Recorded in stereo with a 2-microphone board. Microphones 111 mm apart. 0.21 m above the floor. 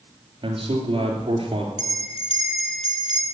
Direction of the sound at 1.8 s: 60° left (ahead or behind).